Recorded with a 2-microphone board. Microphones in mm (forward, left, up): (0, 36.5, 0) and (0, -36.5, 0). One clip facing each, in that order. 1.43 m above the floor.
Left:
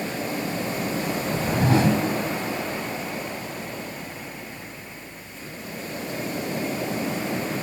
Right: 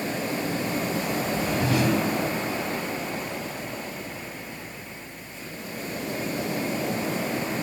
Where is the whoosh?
35° left (ahead or behind), 1.9 m.